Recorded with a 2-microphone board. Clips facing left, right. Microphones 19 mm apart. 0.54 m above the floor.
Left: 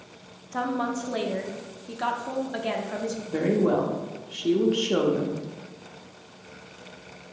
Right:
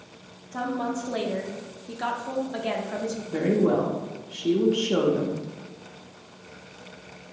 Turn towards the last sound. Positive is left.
turn(degrees=10)  # may be behind; listen again after turning